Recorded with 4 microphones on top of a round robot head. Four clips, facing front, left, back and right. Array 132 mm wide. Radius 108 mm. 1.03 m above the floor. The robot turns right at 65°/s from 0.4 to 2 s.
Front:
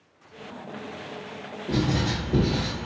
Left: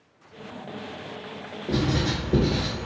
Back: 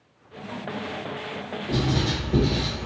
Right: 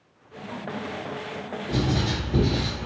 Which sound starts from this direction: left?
Writing, at 1.7 s.